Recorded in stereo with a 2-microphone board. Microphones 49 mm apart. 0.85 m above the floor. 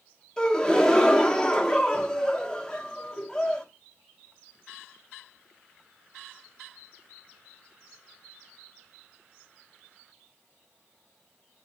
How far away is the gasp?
About 1.1 m.